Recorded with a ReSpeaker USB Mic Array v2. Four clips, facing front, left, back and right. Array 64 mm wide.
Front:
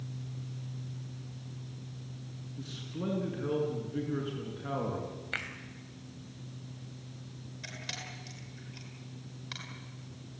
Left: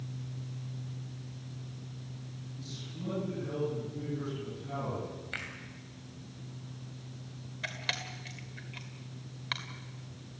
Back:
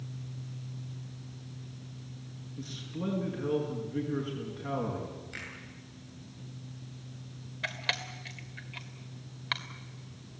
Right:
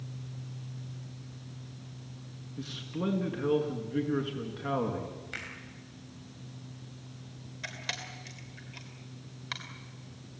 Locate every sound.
2.6 s a man speaking: 90° right, 5.5 m
5.3 s a finger snap: 5° left, 3 m
7.6 s a camera shutter: 170° left, 2.5 m